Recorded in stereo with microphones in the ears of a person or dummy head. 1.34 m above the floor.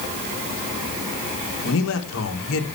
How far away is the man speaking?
About 1.8 m.